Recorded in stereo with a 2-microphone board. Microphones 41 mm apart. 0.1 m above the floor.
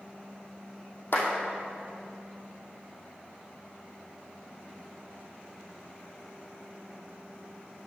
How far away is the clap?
About 3 m.